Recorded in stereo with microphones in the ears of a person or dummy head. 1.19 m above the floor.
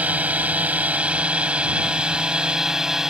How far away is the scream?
I don't hear a scream.